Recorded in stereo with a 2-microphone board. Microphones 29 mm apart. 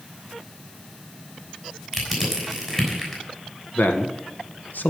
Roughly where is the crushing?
Centre.